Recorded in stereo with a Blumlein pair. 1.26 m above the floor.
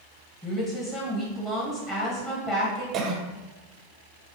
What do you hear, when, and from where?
0.4 s a woman speaking: 20° left, 1.3 m
2.9 s a cough: 25° right, 0.7 m